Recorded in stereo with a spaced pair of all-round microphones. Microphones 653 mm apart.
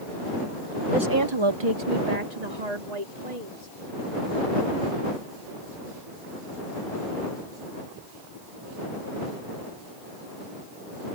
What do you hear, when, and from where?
0.9 s a woman speaking: centre (ahead or behind); by 3.7 s 85° right